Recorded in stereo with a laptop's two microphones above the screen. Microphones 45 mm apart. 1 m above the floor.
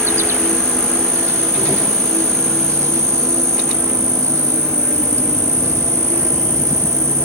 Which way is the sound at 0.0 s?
80° right.